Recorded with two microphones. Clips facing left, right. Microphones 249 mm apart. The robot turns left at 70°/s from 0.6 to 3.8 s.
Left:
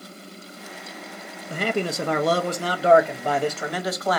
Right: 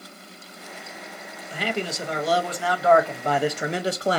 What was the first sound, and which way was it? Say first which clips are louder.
A man speaking: left 3 dB; 130° left.